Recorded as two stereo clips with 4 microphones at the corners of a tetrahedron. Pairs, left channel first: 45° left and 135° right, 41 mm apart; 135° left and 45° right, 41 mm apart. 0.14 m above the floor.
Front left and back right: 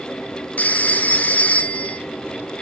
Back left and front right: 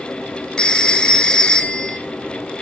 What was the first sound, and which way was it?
A phone ringing, 75° left.